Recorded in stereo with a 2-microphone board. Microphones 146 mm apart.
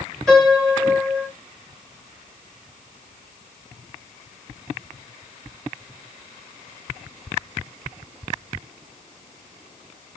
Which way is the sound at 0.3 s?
5° left (ahead or behind).